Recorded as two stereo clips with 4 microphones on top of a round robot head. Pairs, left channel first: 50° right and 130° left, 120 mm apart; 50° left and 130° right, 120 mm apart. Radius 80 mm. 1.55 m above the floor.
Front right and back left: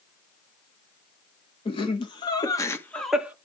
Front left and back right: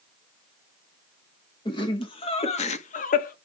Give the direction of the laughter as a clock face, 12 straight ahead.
12 o'clock.